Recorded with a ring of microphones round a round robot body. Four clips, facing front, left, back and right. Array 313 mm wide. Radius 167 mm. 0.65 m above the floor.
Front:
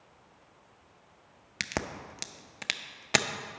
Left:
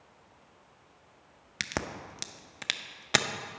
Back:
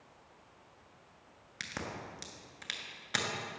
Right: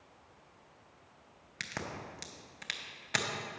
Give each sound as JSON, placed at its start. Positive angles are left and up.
{"t": 1.6, "sound": "a crack", "azimuth_deg": 40, "distance_m": 0.6}